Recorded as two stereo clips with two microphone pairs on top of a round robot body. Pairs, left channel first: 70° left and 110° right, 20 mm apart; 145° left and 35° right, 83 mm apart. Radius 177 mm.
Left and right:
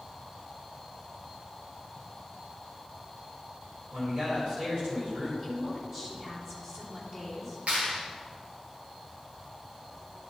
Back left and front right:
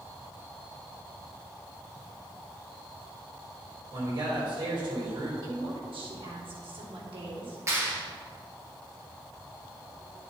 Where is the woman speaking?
40° right, 2.5 m.